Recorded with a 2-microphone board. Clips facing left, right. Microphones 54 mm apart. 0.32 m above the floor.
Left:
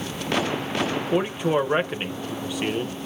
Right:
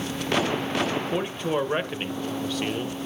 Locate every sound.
1.1 s a man speaking: 15° left (ahead or behind), 0.9 m